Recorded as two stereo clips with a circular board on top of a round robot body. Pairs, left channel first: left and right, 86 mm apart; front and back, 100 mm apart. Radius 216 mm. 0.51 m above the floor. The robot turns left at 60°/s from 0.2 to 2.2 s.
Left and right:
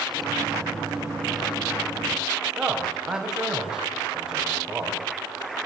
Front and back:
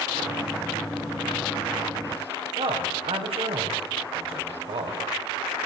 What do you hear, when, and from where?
2.6 s a man speaking: 170° right, 5 m